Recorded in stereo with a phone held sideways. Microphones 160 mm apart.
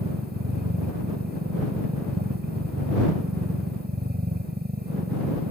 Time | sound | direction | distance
0.0 | a machine running | 85° right | ?